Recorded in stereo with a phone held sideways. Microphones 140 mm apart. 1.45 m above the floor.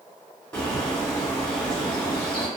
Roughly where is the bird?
Centre.